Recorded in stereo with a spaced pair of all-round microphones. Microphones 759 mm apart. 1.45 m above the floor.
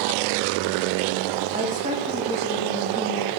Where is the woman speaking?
10° right (ahead or behind), 3 m.